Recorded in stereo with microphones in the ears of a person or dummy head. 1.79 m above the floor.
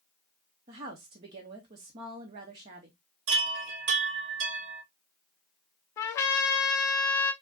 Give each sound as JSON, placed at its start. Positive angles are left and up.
{"t": 0.7, "sound": "a woman speaking", "side_deg": -25, "distance_m": 0.7}
{"t": 3.3, "sound": "a chime", "side_deg": -60, "distance_m": 2.0}
{"t": 6.0, "sound": "a trumpet", "side_deg": 20, "distance_m": 0.5}